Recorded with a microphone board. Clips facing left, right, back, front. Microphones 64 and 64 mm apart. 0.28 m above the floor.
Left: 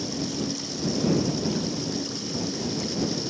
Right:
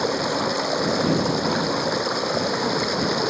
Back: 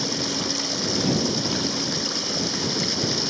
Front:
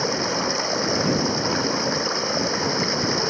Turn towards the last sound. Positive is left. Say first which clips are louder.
# right 7 dB, front 4 dB
turn(degrees=-60)